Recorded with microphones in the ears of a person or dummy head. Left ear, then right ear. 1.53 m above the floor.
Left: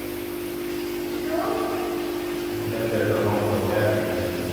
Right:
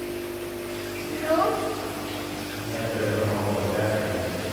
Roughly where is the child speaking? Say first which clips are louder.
Right 4 dB; right.